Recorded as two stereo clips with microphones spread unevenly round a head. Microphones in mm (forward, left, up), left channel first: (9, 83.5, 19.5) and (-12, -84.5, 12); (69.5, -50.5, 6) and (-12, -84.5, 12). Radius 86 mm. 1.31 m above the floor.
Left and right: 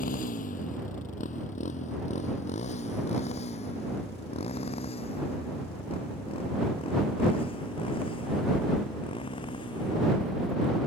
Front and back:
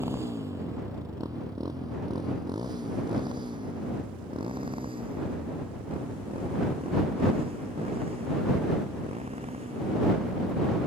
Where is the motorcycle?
125° left; by 10.9 s 145° left.